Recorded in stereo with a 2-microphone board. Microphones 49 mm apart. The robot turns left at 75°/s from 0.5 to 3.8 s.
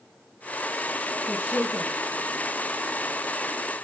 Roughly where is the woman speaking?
Ahead right.